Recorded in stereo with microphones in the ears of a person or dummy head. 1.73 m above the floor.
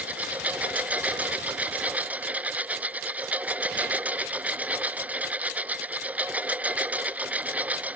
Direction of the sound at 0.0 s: 10° right (ahead or behind).